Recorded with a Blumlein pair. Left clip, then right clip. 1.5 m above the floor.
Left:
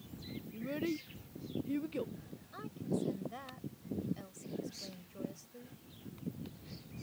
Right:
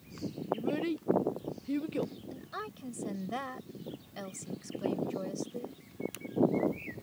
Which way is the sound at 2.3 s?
60° right.